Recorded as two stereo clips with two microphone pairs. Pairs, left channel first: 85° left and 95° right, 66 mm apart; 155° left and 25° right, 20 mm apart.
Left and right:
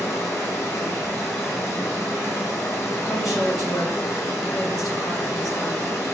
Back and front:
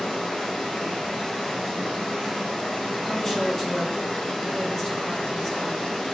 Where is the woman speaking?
80° left, 1.9 m.